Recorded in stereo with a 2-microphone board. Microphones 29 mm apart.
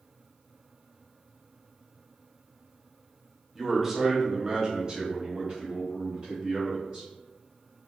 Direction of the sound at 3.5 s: 10° right (ahead or behind).